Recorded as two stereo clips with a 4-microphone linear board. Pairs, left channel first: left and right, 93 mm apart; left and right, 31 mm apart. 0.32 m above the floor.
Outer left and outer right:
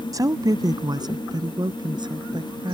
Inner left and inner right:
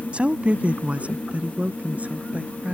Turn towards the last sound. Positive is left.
turn(degrees=-55)  # may be behind; listen again after turning